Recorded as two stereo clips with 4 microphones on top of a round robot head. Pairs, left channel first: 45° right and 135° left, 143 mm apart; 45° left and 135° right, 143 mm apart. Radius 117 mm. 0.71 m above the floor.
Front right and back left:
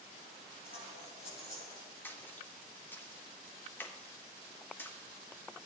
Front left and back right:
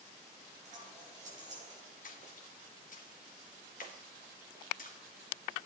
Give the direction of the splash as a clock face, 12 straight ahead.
11 o'clock.